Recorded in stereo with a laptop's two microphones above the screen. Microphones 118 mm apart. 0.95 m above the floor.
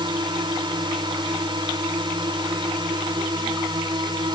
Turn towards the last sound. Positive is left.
turn(degrees=-40)  # may be behind; listen again after turning